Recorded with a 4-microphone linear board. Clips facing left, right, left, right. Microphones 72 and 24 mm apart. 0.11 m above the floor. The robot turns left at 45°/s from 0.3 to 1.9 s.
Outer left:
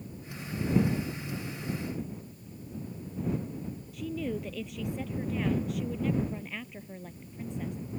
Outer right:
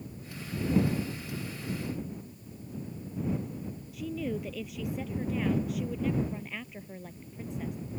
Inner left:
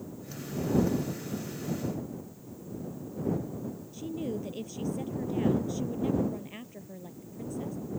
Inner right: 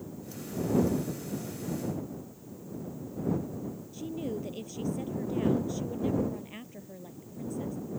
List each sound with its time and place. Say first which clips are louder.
3.9 s a woman speaking: even, inner left 1 dB; centre (ahead or behind)